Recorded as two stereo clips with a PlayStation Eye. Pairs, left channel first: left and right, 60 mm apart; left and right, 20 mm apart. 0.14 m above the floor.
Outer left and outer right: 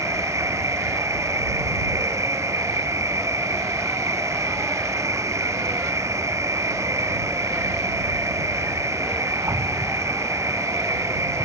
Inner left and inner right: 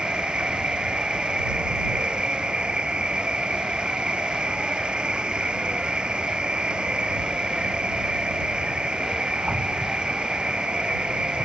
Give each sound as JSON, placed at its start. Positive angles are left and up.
{"t": 0.0, "sound": "an insect", "side_deg": -60}